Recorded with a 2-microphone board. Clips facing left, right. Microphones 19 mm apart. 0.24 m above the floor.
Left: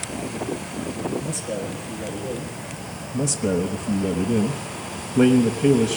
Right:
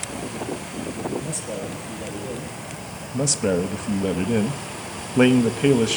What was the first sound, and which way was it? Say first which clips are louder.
A man speaking: left 2 dB; 5° right (ahead or behind).